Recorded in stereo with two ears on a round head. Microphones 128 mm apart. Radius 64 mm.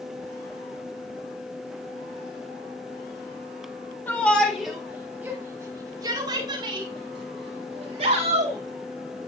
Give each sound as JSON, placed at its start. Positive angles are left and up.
{"t": 4.1, "sound": "a shout", "side_deg": 10, "distance_m": 3.5}